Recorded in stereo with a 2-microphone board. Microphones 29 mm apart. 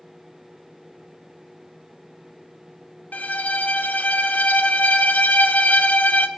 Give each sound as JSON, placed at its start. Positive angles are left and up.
{"t": 3.1, "sound": "a violin", "side_deg": 75, "distance_m": 0.6}